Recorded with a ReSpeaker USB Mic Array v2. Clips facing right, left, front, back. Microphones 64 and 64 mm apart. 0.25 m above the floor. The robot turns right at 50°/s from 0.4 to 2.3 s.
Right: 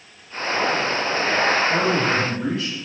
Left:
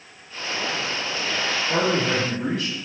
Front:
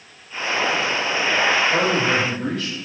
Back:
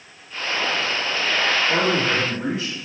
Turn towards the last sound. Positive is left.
turn(degrees=-125)